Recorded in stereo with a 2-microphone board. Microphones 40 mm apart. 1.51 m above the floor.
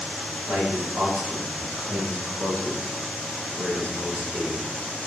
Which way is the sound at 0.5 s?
85° right.